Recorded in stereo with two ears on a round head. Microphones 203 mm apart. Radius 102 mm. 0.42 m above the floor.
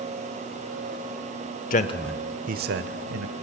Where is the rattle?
I don't hear a rattle.